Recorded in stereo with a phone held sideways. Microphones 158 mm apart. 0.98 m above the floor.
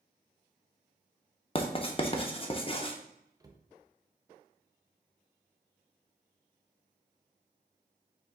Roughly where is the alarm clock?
No alarm clock in this recording.